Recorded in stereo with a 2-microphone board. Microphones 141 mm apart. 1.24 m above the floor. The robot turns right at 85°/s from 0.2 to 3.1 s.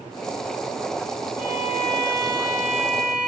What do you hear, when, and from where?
1.4 s a violin: 135° left, 6 m; by 3.3 s 80° right, 6 m